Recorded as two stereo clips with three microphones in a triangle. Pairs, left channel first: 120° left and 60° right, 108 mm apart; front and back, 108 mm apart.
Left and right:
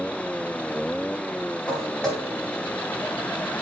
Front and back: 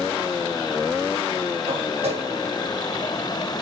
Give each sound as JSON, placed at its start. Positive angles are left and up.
{"t": 1.7, "sound": "footsteps", "azimuth_deg": -160, "distance_m": 7.5}